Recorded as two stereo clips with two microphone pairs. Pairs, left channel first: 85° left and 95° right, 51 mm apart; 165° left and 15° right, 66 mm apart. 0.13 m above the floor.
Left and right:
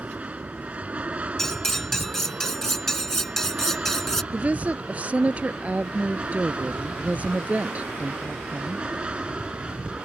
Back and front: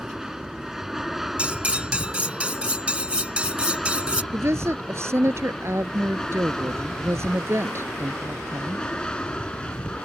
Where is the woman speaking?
45° right.